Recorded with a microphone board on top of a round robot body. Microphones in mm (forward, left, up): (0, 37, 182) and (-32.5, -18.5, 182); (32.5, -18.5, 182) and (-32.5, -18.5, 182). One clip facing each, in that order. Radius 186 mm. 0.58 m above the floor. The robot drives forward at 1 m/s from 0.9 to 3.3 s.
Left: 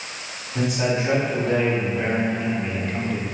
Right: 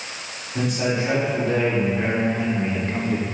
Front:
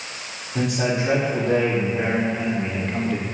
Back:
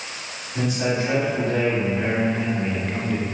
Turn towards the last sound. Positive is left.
turn(degrees=-105)